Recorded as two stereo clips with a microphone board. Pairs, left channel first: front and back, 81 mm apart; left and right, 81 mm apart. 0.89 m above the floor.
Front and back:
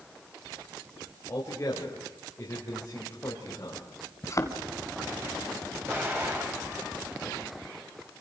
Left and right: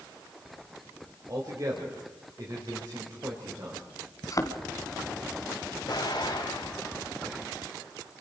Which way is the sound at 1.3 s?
50° right.